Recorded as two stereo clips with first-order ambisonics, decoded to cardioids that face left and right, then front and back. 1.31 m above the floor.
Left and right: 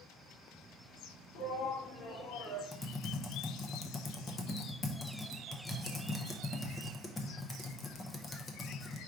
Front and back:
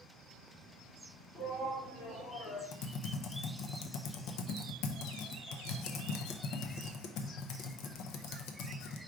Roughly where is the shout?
Left.